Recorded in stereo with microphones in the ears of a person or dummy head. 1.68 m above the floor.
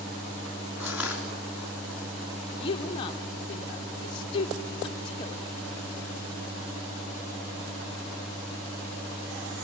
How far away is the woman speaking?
About 0.8 m.